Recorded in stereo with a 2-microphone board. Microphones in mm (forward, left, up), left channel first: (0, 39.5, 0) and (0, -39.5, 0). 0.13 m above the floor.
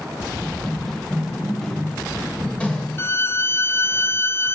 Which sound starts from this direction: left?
A violin, at 3.0 s.